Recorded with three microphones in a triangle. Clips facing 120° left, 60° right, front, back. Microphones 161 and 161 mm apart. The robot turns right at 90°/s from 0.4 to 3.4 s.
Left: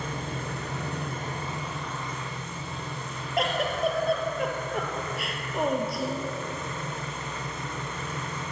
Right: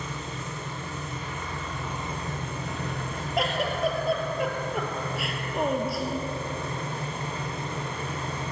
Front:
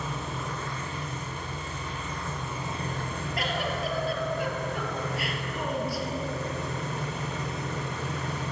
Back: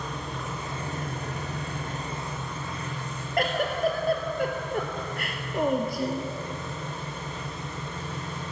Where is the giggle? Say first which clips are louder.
Even, back 6 dB; 150° right, 1.9 m; by 6.3 s 145° right, 1.9 m.